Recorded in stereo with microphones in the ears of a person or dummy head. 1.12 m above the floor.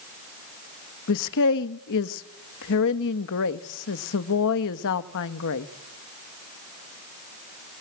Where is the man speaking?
70° left (ahead or behind), 1.2 m.